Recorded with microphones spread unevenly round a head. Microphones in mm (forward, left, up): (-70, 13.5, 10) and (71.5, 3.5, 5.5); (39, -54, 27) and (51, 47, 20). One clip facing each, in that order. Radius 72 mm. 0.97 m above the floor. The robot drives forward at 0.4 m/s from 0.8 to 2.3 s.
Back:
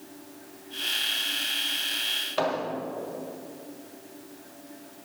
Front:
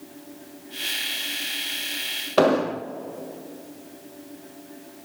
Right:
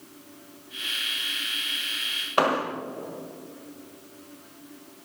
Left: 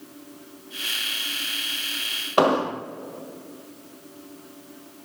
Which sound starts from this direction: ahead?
An explosion, at 2.4 s.